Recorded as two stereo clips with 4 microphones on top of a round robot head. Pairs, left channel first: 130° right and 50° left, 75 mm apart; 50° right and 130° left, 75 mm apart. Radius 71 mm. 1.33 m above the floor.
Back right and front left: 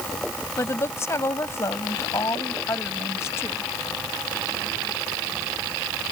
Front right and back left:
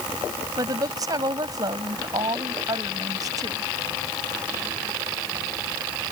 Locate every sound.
0.6 s a woman speaking: 170° left